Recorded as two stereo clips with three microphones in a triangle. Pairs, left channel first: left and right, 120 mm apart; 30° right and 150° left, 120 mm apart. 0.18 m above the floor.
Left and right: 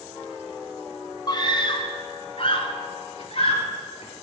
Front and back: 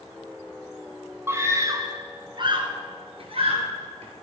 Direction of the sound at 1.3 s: 95° left.